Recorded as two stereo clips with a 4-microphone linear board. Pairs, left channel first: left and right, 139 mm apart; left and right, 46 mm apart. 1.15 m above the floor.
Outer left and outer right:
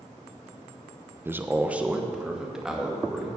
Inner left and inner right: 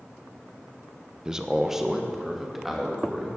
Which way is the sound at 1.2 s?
15° right (ahead or behind).